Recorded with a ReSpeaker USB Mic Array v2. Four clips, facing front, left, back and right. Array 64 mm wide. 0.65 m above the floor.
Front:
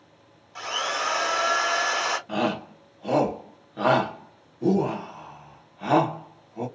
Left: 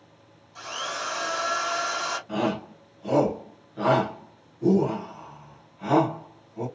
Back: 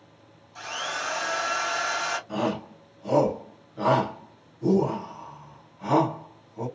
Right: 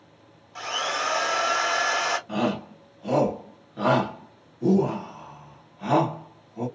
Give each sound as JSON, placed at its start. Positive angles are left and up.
{"t": 0.6, "sound": "a drill", "azimuth_deg": -45, "distance_m": 1.2}
{"t": 2.3, "sound": "a shout", "azimuth_deg": -10, "distance_m": 1.3}